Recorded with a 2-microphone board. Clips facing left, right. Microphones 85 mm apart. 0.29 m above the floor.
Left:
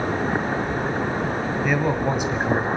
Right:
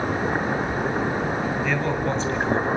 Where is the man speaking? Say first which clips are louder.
Left 2 dB; 15° left (ahead or behind), 1.8 m.